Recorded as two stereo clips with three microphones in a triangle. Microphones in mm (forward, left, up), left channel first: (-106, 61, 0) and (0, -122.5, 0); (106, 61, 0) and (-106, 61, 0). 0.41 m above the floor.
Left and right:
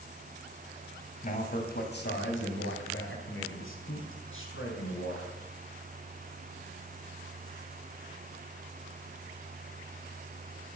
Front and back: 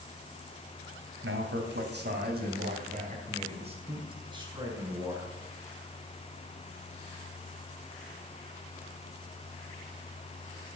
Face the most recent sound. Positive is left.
turn(degrees=105)